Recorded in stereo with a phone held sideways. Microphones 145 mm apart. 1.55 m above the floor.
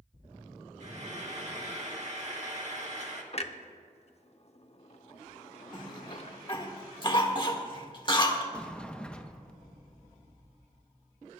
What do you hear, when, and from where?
0.8 s frying: 50° right (ahead or behind), 1.7 m
3.3 s a clunk: 45° left (ahead or behind), 0.7 m
5.7 s a cough: 35° left (ahead or behind), 1.7 m
8.5 s a sliding door: 5° left (ahead or behind), 0.7 m